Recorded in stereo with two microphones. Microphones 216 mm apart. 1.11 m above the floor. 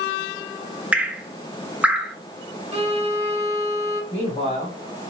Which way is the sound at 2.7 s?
30° right (ahead or behind).